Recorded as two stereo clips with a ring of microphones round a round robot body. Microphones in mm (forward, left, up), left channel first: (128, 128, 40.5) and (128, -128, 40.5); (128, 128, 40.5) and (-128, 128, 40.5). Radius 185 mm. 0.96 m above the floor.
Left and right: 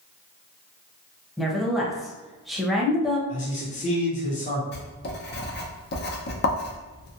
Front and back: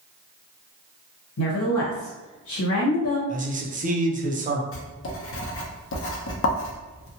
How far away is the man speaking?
About 0.6 m.